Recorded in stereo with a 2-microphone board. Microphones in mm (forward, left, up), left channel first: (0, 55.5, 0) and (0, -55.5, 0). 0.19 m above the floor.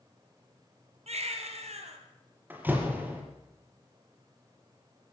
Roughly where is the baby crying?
Right.